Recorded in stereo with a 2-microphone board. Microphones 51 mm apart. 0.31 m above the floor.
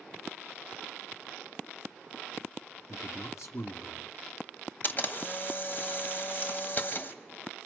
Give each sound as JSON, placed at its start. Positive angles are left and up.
{"t": 2.9, "sound": "a man speaking", "side_deg": 65, "distance_m": 2.5}
{"t": 4.8, "sound": "a camera shutter", "side_deg": 40, "distance_m": 1.2}